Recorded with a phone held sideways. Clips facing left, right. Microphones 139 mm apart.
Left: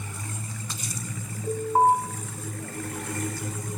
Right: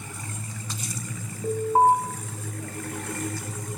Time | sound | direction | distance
1.4 | an alarm | 20° right (ahead or behind) | 3 m